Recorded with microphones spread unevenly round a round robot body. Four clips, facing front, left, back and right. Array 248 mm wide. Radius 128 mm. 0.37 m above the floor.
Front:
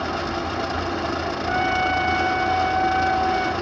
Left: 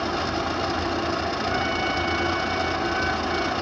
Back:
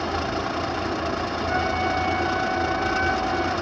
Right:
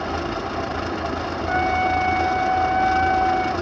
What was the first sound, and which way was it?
A trumpet, 65° right.